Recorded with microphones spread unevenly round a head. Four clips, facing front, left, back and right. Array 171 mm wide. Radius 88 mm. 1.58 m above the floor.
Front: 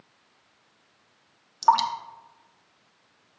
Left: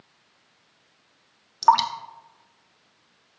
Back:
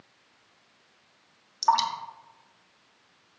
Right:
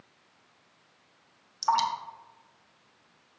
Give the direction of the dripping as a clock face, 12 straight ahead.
10 o'clock.